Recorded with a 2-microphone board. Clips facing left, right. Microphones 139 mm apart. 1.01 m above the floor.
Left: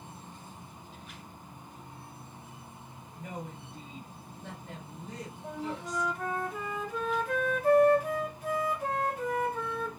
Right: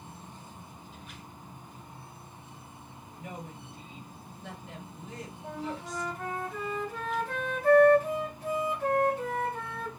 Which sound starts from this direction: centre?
A flute, at 5.4 s.